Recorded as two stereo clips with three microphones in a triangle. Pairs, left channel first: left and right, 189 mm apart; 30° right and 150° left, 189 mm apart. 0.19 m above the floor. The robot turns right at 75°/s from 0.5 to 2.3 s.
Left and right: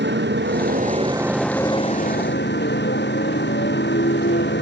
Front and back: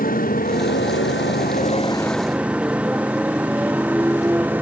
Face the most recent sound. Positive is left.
turn(degrees=70)